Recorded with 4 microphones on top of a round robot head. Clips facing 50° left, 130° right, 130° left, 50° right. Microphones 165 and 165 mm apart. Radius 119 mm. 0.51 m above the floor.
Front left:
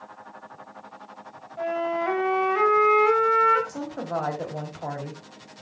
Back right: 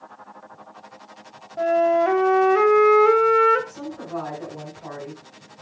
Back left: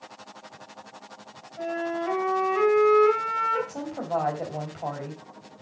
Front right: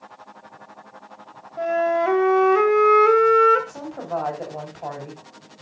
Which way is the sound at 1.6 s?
85° right.